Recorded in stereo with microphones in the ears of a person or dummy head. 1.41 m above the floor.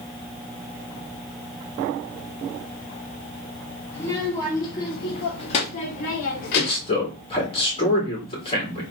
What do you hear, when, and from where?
3.9 s a child speaking: 15° left (ahead or behind), 2.5 m; by 7.0 s 65° left (ahead or behind), 1.5 m
6.5 s a man speaking: 30° left (ahead or behind), 3 m